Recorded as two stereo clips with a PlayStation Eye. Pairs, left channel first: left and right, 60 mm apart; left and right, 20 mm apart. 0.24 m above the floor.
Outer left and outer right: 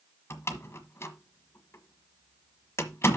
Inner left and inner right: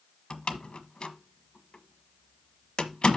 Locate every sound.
0.3 s a door slam: 45° left (ahead or behind), 1.2 m